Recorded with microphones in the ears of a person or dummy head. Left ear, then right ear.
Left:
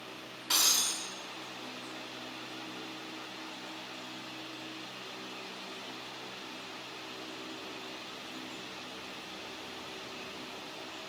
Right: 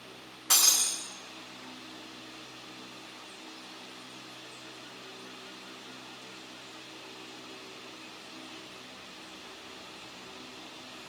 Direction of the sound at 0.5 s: 35° right (ahead or behind).